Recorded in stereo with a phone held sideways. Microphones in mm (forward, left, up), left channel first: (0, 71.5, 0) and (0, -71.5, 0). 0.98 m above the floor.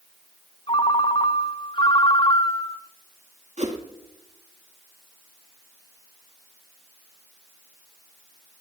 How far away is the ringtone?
About 0.7 m.